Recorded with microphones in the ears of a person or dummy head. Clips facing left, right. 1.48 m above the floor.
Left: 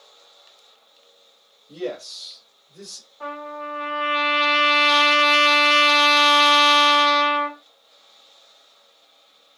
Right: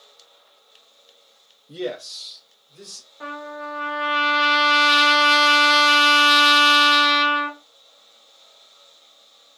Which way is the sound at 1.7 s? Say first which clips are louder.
Right 1 dB; 25° right (ahead or behind).